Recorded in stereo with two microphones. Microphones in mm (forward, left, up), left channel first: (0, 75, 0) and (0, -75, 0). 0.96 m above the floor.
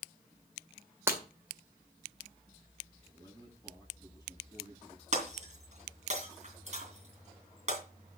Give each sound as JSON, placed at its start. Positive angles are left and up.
{"t": 1.1, "sound": "breaking glass", "side_deg": -15, "distance_m": 2.0}
{"t": 3.0, "sound": "a man speaking", "side_deg": -20, "distance_m": 8.5}
{"t": 5.1, "sound": "breaking glass", "side_deg": -45, "distance_m": 3.5}